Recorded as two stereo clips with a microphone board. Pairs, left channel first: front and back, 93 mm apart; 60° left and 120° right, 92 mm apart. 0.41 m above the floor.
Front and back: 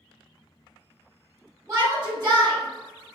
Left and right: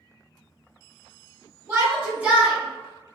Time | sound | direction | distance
1.7 | a shout | 150° right | 1.4 m